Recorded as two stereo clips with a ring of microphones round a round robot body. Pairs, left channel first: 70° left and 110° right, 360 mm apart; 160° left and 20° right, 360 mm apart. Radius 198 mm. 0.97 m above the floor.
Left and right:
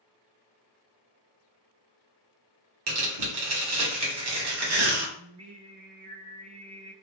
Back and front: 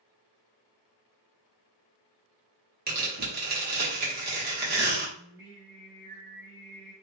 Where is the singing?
105° right, 0.7 m.